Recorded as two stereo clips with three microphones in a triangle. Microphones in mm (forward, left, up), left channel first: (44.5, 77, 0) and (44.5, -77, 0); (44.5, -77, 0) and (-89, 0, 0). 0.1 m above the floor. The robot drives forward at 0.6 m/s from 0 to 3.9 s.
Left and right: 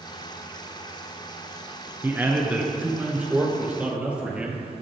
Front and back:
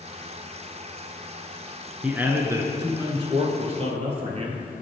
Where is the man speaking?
140° right, 1.1 m; by 4.8 s 170° right, 1.7 m.